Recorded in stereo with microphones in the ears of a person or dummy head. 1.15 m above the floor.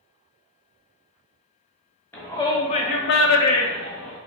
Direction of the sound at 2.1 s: 15° left (ahead or behind).